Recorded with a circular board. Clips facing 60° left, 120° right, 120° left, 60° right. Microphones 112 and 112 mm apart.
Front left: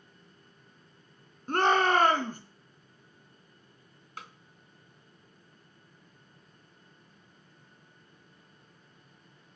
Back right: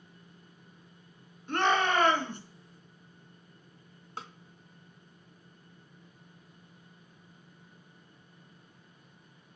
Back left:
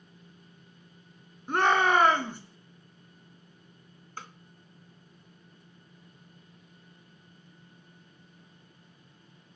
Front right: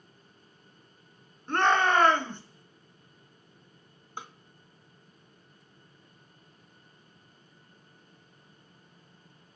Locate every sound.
1.5 s a shout: 45° left, 2 m
4.2 s a snare drum: 115° right, 0.8 m